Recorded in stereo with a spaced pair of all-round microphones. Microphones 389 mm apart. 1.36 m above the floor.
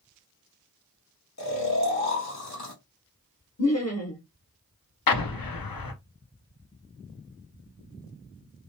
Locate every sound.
1.4 s snoring: 45° left (ahead or behind), 1.4 m
3.6 s laughter: 45° left (ahead or behind), 0.7 m
5.1 s an explosion: 70° left (ahead or behind), 0.6 m